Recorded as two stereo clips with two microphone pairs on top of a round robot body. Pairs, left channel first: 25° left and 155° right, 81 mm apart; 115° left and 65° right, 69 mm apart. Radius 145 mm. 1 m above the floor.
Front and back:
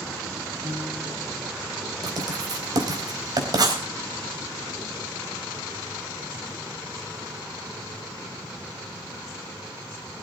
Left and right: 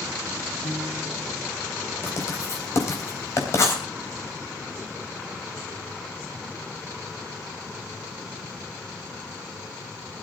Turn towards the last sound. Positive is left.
turn(degrees=165)